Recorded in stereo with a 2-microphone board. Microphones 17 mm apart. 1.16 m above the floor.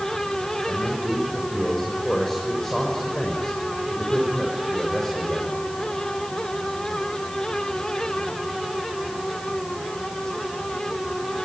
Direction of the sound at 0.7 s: 20° left (ahead or behind).